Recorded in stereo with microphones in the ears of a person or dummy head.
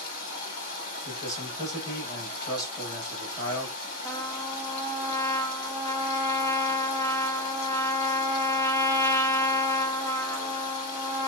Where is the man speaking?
20° left (ahead or behind), 0.9 m.